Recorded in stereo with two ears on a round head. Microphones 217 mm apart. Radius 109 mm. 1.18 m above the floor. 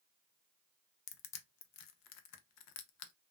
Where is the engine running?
No engine running in this recording.